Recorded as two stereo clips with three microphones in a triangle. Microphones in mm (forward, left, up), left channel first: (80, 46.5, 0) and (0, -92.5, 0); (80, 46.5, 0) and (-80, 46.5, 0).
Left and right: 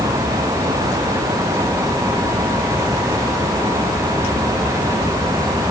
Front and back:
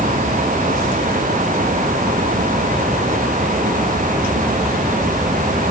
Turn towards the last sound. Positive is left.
No sound to turn to.